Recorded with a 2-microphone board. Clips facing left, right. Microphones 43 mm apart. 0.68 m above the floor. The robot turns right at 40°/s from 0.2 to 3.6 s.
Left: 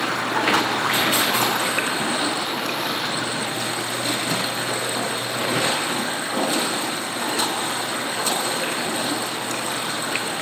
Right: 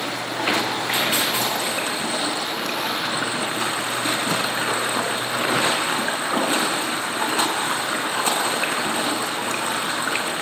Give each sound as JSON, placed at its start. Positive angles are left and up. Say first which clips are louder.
{"t": 0.0, "sound": "running water", "louder": "left 3 dB", "azimuth_deg": 80, "distance_m": 4.0}